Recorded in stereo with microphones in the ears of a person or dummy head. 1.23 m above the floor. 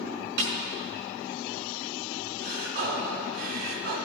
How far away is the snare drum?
About 4.5 m.